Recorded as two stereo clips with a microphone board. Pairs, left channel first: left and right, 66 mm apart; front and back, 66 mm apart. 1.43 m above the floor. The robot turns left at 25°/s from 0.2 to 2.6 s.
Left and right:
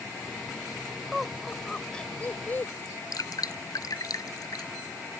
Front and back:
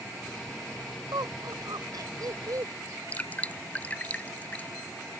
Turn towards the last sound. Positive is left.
turn(degrees=70)